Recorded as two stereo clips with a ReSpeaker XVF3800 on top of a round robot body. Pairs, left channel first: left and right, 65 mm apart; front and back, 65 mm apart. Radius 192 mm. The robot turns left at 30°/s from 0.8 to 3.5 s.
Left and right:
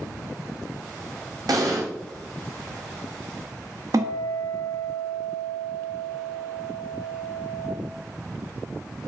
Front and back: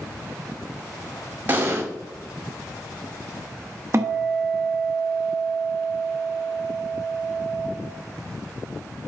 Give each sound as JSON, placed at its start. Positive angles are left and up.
{"t": 1.5, "sound": "an explosion", "azimuth_deg": -120, "distance_m": 0.8}
{"t": 3.9, "sound": "a guitar", "azimuth_deg": -130, "distance_m": 0.5}